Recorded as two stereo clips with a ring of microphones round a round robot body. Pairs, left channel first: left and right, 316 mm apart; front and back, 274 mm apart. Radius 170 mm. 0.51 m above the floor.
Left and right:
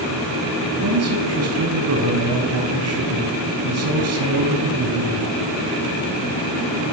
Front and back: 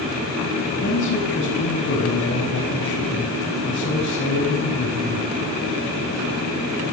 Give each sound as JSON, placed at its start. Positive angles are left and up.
{"t": 0.8, "sound": "a man speaking", "azimuth_deg": -50, "distance_m": 5.5}